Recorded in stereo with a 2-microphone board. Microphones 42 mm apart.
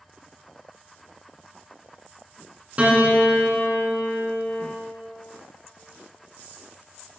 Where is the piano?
35° right (ahead or behind), 1.0 m.